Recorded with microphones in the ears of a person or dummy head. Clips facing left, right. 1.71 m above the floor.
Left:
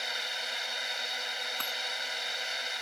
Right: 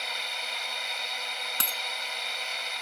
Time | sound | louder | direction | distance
0.0 | a drone | right 1 dB | 10° left (ahead or behind) | ?
1.6 | a dropped coin | right 2 dB | 30° right (ahead or behind) | ?